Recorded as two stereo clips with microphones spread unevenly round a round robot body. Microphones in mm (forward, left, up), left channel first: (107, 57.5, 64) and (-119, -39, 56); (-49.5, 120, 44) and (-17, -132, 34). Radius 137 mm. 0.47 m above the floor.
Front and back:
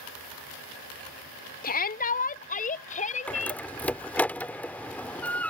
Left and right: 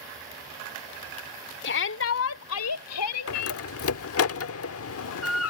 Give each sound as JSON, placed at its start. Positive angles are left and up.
{"t": 1.6, "sound": "a shout", "azimuth_deg": 65}
{"t": 3.3, "sound": "a door slam", "azimuth_deg": 105}